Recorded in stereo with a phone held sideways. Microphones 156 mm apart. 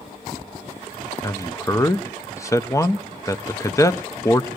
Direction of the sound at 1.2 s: 20° left (ahead or behind).